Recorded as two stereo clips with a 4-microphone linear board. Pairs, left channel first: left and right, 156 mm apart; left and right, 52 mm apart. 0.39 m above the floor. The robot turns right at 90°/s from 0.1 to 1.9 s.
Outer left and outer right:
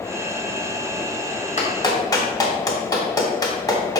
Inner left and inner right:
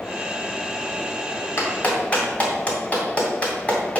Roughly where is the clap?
Left.